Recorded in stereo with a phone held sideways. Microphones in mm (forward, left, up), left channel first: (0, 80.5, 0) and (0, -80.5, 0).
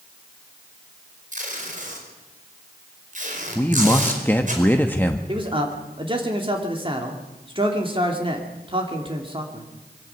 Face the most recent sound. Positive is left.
turn(degrees=-35)  # may be behind; listen again after turning